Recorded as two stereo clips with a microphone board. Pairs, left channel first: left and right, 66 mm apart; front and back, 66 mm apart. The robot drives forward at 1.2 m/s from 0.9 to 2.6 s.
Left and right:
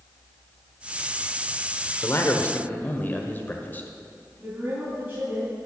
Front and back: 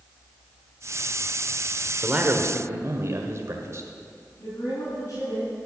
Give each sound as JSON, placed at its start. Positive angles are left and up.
{"t": 2.0, "sound": "a man speaking", "azimuth_deg": 110, "distance_m": 1.0}
{"t": 4.4, "sound": "a woman speaking", "azimuth_deg": -25, "distance_m": 4.0}